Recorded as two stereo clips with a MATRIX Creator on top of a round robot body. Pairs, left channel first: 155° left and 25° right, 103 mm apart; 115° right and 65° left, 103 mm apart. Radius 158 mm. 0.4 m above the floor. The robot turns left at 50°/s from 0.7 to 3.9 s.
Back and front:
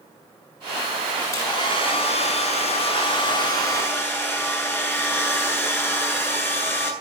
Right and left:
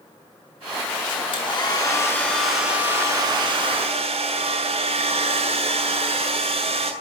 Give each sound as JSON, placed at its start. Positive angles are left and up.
{"t": 1.3, "sound": "a hair dryer", "azimuth_deg": -145, "distance_m": 8.0}